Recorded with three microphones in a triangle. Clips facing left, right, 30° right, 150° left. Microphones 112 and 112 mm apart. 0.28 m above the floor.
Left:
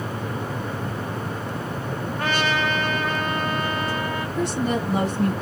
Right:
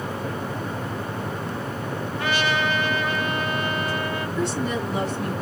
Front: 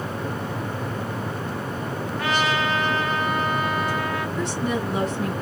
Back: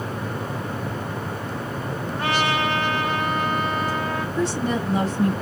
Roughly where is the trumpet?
Left.